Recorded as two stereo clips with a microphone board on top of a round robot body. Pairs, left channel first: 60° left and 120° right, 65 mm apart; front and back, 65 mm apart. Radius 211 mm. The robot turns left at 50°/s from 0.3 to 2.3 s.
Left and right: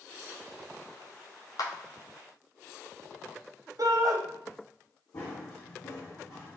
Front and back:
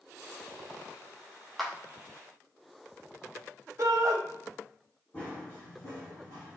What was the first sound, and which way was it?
A clap, 90° left.